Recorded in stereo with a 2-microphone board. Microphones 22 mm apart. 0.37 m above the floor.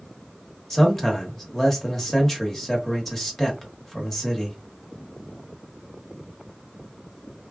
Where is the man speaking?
10° left (ahead or behind), 1.1 m.